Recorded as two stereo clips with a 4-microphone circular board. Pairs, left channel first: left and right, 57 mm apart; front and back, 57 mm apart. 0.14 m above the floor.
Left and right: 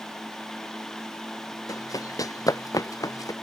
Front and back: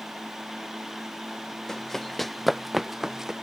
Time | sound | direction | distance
1.7 | running footsteps | 80° left | ?